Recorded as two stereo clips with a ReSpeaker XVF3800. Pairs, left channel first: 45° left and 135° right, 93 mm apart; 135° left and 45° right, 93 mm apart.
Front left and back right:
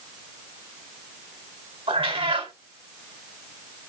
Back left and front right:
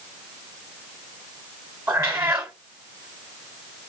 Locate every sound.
1.9 s a cat meowing: 110° right, 0.9 m